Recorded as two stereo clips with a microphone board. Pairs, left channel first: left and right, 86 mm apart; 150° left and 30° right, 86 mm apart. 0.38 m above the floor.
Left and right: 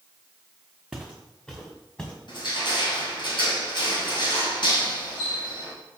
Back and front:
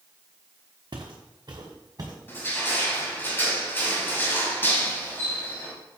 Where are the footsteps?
Straight ahead, 1.5 m; by 2.1 s 15° left, 2.5 m.